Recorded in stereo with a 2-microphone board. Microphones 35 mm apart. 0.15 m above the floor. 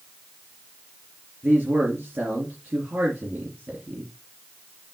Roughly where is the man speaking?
Right.